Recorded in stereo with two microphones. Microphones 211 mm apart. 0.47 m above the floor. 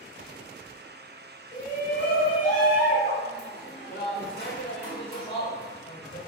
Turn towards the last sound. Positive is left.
turn(degrees=55)  # may be behind; listen again after turning